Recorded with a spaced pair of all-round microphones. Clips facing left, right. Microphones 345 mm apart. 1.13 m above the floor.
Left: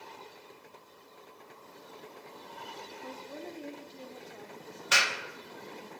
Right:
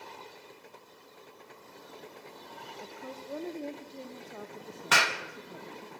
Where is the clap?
65° right (ahead or behind), 0.9 m.